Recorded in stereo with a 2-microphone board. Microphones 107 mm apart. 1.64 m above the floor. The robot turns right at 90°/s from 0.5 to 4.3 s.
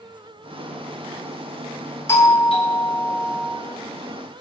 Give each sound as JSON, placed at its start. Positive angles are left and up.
{"t": 2.1, "sound": "a doorbell", "azimuth_deg": 25, "distance_m": 0.9}